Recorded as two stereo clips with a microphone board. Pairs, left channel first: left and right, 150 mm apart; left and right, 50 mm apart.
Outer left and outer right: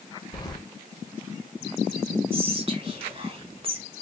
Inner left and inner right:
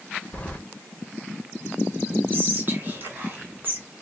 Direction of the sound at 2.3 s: 35° right (ahead or behind).